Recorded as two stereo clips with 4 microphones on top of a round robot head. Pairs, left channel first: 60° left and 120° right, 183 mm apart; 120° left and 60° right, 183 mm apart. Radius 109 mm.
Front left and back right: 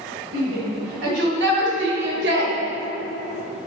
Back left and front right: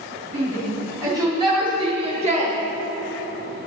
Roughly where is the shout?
Behind right.